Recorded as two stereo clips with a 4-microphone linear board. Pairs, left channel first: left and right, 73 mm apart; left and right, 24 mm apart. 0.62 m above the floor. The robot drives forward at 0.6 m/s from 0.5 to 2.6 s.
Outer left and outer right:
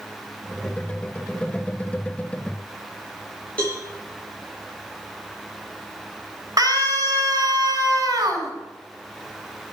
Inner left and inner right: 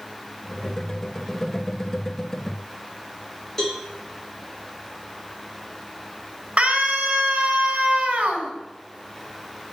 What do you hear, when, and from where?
3.6 s a cowbell: 20° left (ahead or behind), 5.5 m
6.6 s a scream: 50° right (ahead or behind), 5.5 m